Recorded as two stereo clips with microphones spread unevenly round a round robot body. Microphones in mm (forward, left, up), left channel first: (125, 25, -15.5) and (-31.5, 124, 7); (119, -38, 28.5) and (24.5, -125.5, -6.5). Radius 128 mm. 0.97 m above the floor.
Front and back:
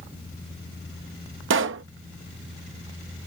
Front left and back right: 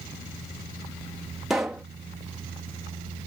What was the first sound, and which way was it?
A pop, 140° left.